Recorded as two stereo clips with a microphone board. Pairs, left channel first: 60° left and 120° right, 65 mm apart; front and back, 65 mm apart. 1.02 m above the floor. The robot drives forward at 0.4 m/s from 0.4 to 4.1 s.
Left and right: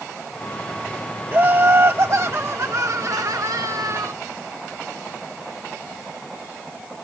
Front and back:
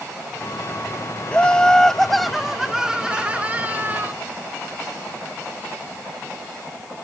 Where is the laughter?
70° right; by 4.1 s 125° right.